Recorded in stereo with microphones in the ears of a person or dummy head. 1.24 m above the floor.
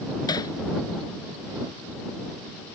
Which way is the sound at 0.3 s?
20° left (ahead or behind).